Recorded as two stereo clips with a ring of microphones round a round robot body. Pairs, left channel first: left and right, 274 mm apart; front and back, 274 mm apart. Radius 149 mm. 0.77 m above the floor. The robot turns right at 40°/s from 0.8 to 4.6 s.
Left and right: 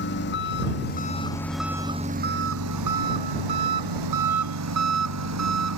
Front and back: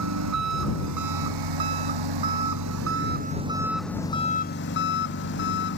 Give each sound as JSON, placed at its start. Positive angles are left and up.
{"t": 0.0, "sound": "an engine running", "azimuth_deg": 150}